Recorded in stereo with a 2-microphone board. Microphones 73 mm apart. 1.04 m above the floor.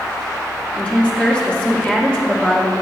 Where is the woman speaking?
15° left (ahead or behind), 2.5 m.